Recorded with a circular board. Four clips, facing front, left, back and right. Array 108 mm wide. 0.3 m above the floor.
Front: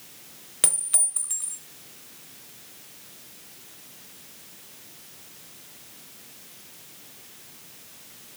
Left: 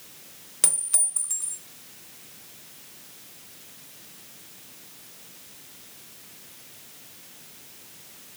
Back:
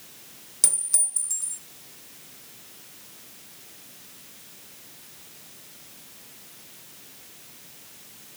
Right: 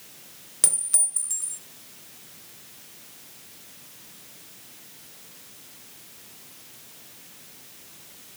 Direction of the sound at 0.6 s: 5° left.